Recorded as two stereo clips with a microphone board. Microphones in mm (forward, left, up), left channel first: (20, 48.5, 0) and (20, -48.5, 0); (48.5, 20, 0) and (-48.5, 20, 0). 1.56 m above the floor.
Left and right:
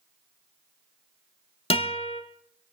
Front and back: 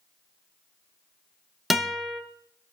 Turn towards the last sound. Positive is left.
turn(degrees=90)